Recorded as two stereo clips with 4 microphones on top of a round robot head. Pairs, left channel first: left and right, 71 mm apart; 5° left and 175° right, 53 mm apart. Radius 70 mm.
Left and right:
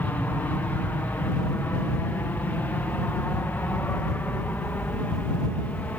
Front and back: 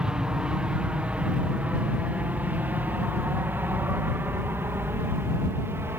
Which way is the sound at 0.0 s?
125° left.